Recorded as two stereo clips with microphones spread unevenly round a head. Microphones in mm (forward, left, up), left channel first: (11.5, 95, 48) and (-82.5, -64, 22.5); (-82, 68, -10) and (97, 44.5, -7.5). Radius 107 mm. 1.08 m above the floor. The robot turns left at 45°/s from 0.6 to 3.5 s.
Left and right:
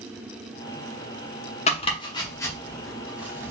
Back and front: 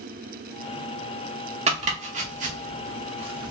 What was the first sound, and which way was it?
Chopping, 20° left.